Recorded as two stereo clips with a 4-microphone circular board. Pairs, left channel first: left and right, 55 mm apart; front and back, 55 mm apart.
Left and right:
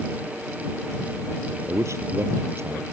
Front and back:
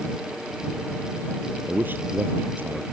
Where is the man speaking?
125° right.